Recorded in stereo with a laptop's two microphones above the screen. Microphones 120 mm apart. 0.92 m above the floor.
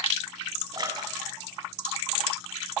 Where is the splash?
35° right (ahead or behind), 8 m.